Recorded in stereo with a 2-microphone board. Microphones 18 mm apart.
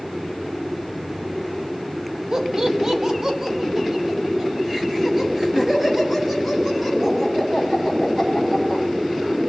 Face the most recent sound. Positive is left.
turn(degrees=-15)  # may be behind; listen again after turning